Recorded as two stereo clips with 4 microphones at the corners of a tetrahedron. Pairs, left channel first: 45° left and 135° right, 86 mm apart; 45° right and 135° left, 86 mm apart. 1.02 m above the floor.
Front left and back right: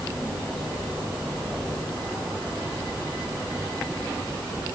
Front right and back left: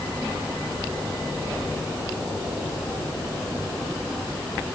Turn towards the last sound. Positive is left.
No sound to turn to.